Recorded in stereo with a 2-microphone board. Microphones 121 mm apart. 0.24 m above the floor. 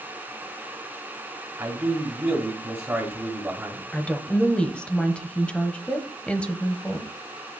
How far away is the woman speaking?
About 1.0 m.